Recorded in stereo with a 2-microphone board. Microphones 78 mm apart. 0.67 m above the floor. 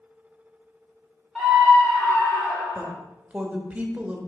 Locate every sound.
1.4 s a scream: 5° left (ahead or behind), 2 m; by 2.9 s 60° left (ahead or behind), 1.7 m
2.8 s a woman speaking: 20° right (ahead or behind), 0.9 m